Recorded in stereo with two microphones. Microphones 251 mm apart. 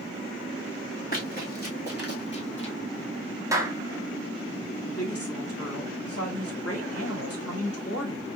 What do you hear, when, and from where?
1.1 s running footsteps: 35° left (ahead or behind), 2.5 m; by 2.8 s 50° left (ahead or behind), 1.5 m
3.5 s a clap: 10° right (ahead or behind), 0.9 m
4.8 s a woman speaking: 65° left (ahead or behind), 1.9 m